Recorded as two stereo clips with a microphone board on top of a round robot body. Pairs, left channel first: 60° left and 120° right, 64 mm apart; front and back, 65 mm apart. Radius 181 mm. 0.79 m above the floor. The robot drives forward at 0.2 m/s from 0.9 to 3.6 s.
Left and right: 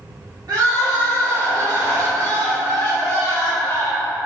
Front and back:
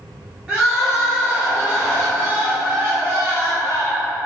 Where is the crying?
100° right, 1.2 m; by 4.2 s 125° right, 1.4 m.